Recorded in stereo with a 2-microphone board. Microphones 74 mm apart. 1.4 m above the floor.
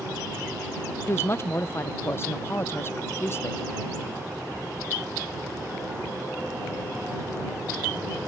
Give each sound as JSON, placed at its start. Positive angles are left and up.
{"t": 1.1, "sound": "a woman speaking", "side_deg": 35}